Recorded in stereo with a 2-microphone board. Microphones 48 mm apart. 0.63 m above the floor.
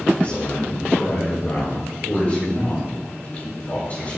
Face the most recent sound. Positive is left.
turn(degrees=35)  # may be behind; listen again after turning